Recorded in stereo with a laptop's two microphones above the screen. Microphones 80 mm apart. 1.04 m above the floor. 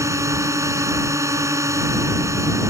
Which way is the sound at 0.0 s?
40° right (ahead or behind).